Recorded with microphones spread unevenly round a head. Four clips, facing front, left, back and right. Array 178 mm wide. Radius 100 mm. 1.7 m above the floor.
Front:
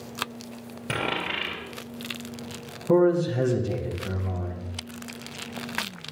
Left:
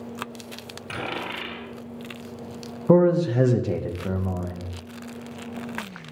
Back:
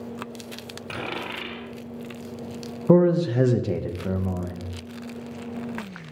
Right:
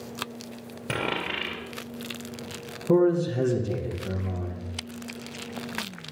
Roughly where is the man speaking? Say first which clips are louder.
Left 3 dB, back 2 dB; left.